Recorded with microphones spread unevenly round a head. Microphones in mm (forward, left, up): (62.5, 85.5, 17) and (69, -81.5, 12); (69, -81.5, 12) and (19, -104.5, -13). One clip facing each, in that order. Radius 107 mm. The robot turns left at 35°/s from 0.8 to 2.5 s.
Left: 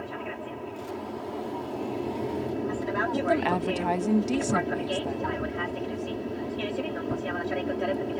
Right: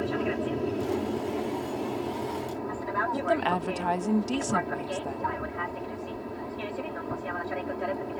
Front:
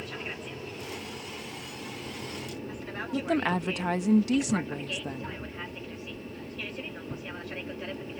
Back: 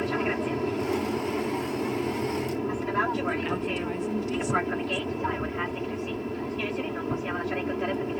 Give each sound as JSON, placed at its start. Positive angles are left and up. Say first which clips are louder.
{"t": 0.0, "sound": "an aircraft", "louder": "right 7 dB, back 11 dB", "azimuth_deg": -140}
{"t": 3.1, "sound": "a woman speaking", "louder": "left 1 dB, front 1 dB", "azimuth_deg": 10}